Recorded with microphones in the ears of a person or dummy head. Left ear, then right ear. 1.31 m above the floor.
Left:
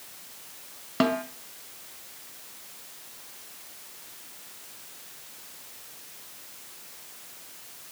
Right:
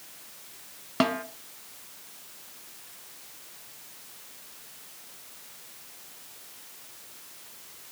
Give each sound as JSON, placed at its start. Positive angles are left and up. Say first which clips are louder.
{"t": 1.0, "sound": "a snare drum", "louder": "left 1 dB", "side_deg": -15, "distance_m": 1.5}